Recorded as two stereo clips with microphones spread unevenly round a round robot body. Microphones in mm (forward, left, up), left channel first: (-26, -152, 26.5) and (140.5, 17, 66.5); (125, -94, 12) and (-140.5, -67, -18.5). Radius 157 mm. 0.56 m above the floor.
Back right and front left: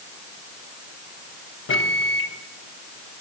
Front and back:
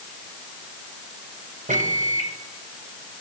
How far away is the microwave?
About 2 m.